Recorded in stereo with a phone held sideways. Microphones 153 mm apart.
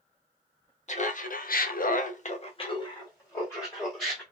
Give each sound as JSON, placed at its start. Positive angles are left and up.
{"t": 0.9, "sound": "laughter", "side_deg": 50, "distance_m": 0.7}